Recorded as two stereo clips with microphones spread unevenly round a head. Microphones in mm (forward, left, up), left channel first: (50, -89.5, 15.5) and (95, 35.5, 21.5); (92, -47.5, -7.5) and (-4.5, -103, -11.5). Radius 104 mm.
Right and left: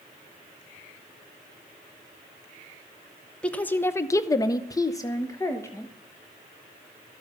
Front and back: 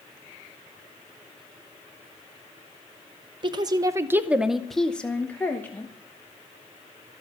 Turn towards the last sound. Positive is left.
turn(degrees=-40)